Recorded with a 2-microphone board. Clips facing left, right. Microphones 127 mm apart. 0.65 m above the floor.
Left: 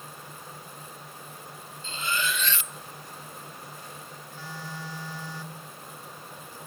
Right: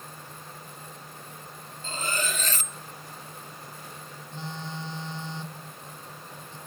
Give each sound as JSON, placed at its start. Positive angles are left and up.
{"t": 1.8, "sound": "cutlery clinking", "side_deg": -45, "distance_m": 0.5}
{"t": 4.3, "sound": "a phone buzzing", "side_deg": -25, "distance_m": 1.8}